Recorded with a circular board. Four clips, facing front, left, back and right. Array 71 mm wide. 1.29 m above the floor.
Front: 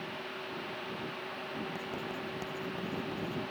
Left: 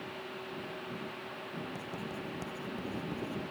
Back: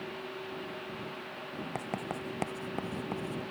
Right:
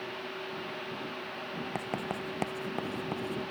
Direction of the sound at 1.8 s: 125° right.